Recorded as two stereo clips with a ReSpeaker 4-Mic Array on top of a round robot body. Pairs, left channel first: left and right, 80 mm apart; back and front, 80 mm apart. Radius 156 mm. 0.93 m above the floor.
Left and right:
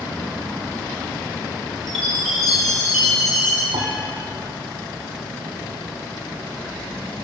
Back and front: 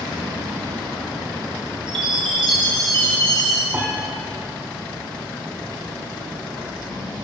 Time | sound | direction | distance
1.9 | a chime | straight ahead | 2.0 m
3.7 | a piano | 60° right | 0.8 m